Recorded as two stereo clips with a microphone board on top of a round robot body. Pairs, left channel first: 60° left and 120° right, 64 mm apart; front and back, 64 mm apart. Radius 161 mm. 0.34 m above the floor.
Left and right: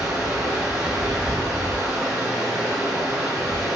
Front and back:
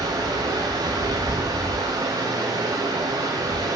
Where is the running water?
155° left, 6 m.